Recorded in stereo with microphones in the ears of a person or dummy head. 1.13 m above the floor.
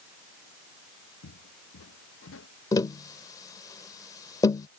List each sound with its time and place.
1.2 s footsteps: 75° left (ahead or behind); by 2.5 s 80° left
2.7 s tapping: 20° left (ahead or behind)